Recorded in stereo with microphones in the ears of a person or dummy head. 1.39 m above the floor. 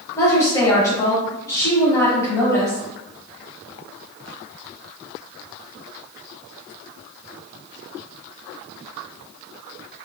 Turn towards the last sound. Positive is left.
turn(degrees=15)  # may be behind; listen again after turning